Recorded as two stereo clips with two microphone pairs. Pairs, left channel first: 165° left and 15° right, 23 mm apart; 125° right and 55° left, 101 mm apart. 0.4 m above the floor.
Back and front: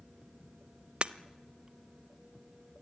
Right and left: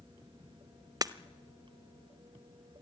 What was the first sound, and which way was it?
Breaking glass, 10° left.